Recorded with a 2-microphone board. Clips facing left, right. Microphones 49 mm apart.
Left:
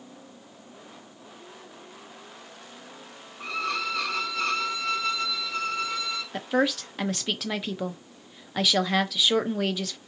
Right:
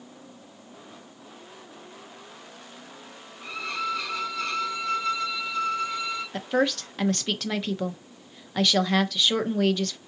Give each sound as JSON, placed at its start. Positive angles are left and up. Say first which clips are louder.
{"t": 3.4, "sound": "a violin", "louder": "left 2 dB", "side_deg": 65, "distance_m": 1.1}
{"t": 6.3, "sound": "a woman speaking", "louder": "even", "side_deg": 5, "distance_m": 0.6}